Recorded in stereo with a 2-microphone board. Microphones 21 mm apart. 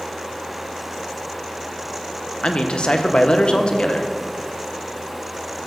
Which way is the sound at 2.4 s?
55° left (ahead or behind).